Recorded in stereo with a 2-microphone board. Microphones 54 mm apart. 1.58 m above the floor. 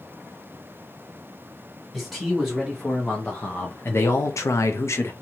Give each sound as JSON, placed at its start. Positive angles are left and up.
{"t": 1.9, "sound": "a man speaking", "side_deg": 5, "distance_m": 1.5}